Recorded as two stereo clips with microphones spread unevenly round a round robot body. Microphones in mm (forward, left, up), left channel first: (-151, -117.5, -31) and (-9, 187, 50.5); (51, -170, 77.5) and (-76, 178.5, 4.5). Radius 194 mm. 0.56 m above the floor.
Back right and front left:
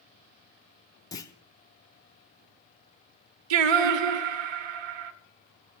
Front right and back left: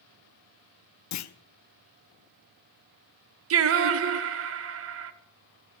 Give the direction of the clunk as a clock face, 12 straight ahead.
3 o'clock.